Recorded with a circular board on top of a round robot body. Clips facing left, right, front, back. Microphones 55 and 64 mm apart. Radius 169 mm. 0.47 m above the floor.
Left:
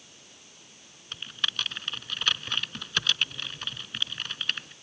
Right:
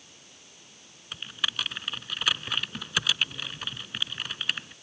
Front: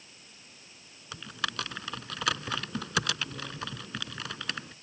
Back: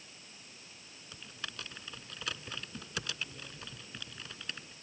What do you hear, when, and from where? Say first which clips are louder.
1.1 s typing on a keyboard: even, front 11 dB; 5° right